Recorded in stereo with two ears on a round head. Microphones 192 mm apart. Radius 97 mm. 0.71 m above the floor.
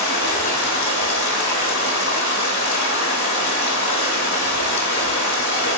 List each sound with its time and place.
0.0 s running water: 55° left (ahead or behind), 0.9 m